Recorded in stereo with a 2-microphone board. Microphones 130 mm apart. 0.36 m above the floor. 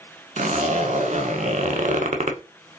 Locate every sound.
0.4 s a zipper: 70° right (ahead or behind), 0.7 m